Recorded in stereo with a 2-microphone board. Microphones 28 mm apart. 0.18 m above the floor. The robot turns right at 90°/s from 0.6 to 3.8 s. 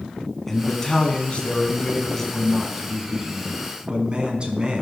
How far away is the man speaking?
About 1.4 m.